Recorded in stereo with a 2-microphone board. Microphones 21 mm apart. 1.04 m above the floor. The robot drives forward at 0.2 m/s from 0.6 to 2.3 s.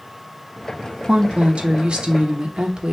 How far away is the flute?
No flute in this recording.